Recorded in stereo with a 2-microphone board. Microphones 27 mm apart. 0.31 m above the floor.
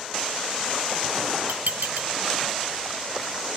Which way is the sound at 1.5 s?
80° right.